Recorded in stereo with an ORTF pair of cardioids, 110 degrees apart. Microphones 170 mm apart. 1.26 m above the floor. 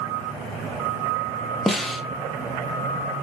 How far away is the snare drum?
About 0.6 m.